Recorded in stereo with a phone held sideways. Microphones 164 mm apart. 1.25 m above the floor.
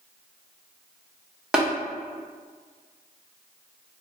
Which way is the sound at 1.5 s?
5° right (ahead or behind).